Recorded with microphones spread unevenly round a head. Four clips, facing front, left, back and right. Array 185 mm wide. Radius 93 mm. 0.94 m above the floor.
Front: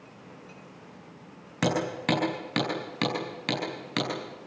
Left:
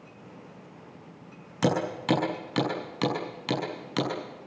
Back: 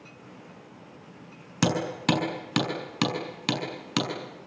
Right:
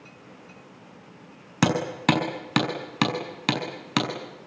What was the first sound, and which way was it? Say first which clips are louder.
Hammering: right 3 dB, back 1 dB; 95° right.